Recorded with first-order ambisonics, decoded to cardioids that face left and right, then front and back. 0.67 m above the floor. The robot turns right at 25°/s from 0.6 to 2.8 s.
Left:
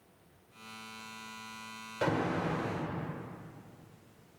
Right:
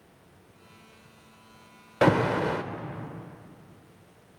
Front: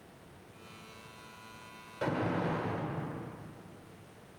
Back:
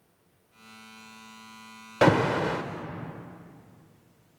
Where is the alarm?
145° right, 1.2 m; by 2.6 s 130° right, 1.2 m.